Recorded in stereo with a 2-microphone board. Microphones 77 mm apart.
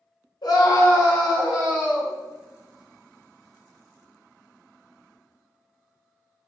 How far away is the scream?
About 0.7 m.